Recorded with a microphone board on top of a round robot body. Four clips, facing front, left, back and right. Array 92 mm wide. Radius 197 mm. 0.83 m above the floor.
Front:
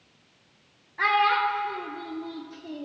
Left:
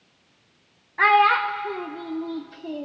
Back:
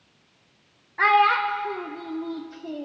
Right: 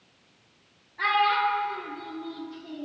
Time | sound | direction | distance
1.0 | a child speaking | 120° left | 0.6 m